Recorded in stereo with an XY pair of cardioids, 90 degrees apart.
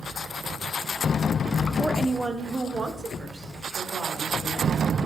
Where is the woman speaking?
10° right, 2 m; by 4.9 s 55° right, 5 m.